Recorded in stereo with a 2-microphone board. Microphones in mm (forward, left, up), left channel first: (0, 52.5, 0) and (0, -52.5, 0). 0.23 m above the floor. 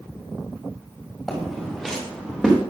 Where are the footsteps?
5° left (ahead or behind), 7.5 m.